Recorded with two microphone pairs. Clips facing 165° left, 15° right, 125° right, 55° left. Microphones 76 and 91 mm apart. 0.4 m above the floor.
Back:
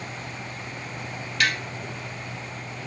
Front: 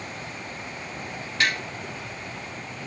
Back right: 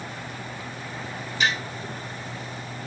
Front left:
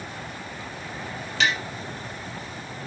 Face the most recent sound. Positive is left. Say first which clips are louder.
# even, front left 1 dB
turn(degrees=50)